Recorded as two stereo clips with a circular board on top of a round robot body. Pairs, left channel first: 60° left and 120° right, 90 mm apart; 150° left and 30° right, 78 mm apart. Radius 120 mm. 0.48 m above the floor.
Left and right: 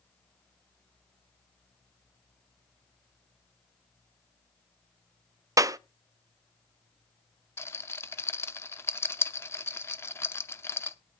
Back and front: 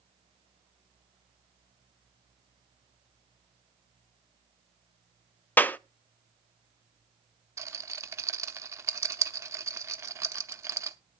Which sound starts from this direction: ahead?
A rattle, at 7.6 s.